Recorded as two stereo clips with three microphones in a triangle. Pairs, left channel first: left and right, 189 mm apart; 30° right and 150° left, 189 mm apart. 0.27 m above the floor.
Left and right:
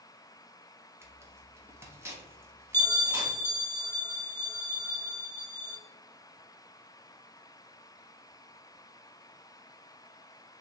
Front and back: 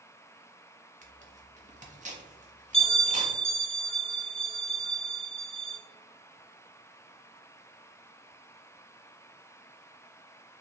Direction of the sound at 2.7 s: 10° left.